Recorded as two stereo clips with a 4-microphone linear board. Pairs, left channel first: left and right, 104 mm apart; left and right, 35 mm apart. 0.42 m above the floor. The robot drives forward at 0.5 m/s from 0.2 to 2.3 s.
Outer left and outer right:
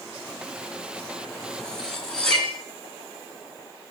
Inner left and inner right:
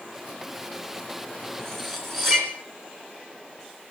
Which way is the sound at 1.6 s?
5° left (ahead or behind).